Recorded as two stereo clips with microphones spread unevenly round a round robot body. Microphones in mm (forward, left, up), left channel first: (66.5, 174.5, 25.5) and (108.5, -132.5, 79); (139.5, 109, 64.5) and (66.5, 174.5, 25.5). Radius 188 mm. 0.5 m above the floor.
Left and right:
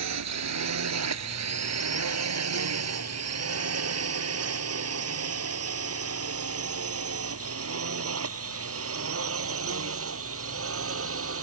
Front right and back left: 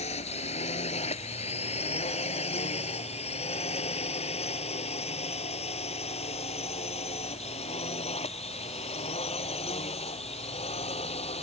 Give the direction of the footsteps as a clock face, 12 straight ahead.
No footsteps in this recording.